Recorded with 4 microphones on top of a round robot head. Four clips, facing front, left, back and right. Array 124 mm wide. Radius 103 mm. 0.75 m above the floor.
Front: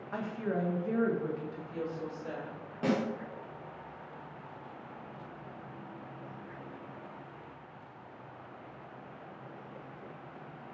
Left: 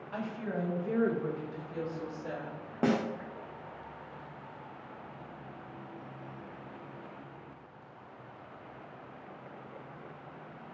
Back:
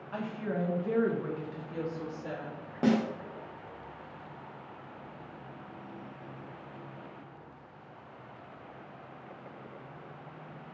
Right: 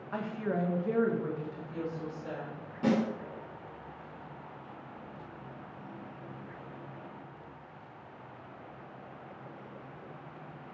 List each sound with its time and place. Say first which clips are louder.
0.1 s a woman speaking: right 3 dB, even; 60° right, 0.8 m; by 2.6 s 160° left, 1.1 m
2.8 s a snare drum: right 1 dB, back 4 dB; 115° left, 0.6 m